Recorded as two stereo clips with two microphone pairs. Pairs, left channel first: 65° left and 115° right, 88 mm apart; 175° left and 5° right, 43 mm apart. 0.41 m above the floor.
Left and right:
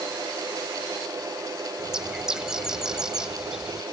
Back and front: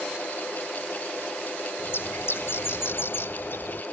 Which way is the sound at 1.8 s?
165° left.